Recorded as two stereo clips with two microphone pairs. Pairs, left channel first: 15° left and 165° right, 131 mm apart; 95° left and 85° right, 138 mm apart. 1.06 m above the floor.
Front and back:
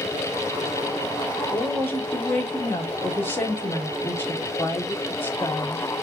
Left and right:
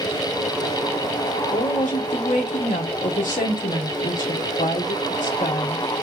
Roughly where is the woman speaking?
Left.